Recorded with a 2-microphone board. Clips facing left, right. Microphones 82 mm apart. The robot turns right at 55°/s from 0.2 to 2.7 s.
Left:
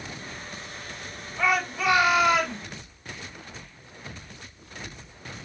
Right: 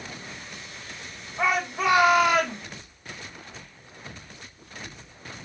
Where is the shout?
145° right, 1.5 m; by 2.6 s 80° right, 1.5 m.